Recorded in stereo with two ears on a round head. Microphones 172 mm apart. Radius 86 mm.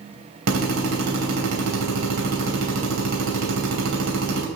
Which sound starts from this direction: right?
A drill, at 0.5 s.